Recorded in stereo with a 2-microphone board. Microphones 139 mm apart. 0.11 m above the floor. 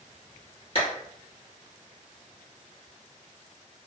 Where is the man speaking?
I don't hear a man speaking.